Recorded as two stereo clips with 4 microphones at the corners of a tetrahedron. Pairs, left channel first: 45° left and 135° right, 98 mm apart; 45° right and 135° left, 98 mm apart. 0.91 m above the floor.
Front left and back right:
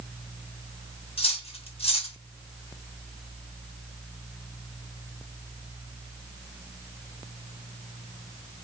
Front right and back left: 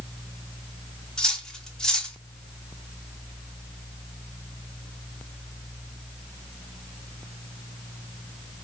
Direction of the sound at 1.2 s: 40° left.